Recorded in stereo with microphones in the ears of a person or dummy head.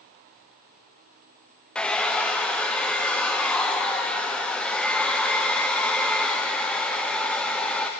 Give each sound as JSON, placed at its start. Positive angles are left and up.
{"t": 1.8, "sound": "a hair dryer", "side_deg": 5, "distance_m": 0.5}